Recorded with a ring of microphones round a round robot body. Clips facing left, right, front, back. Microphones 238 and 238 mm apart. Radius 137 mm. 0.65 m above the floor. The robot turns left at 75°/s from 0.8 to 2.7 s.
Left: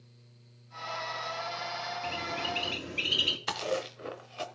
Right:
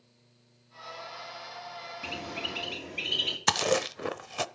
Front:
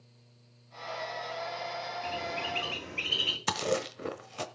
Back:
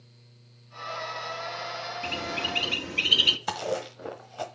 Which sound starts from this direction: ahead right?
Chewing, at 3.5 s.